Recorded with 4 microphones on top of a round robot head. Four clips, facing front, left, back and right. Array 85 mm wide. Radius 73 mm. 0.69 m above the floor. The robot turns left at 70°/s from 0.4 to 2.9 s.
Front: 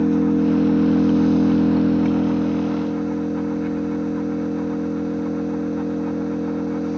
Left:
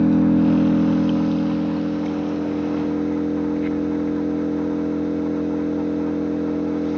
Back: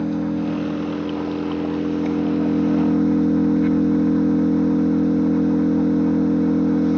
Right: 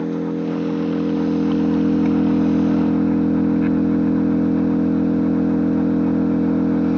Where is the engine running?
65° left, 3 m; by 7.0 s 110° right, 3 m.